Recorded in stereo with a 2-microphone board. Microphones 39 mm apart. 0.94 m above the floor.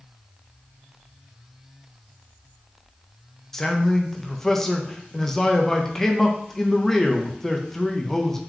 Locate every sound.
3.5 s a man speaking: 10° left (ahead or behind), 0.6 m